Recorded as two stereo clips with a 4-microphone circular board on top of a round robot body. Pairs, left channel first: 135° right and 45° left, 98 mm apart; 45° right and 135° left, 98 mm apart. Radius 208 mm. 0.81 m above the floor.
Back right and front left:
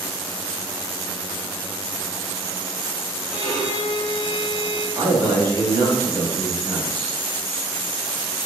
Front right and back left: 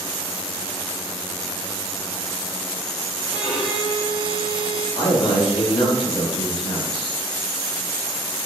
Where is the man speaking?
10° right, 3 m.